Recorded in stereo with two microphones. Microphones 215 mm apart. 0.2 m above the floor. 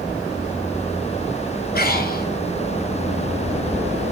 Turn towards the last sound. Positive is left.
turn(degrees=45)  # may be behind; listen again after turning